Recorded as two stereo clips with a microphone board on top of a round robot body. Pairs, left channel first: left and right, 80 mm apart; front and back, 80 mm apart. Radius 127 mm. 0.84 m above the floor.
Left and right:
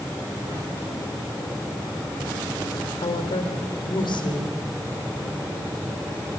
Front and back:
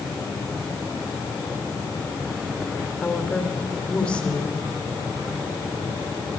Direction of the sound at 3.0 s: 75° left.